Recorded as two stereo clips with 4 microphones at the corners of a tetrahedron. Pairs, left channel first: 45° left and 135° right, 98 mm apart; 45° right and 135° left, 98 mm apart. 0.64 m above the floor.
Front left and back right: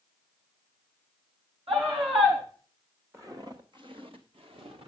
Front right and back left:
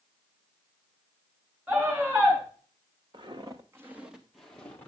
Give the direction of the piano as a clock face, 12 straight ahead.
No piano in this recording.